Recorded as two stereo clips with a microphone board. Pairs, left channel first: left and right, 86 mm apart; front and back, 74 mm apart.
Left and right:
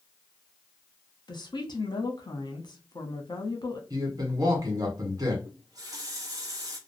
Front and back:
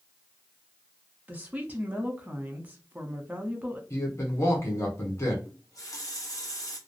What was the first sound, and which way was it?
A woman speaking, 110° left.